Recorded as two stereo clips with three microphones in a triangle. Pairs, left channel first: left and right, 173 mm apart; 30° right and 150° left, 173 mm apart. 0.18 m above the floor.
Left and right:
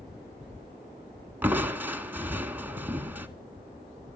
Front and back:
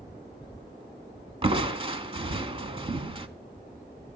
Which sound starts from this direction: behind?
Crushing, at 1.4 s.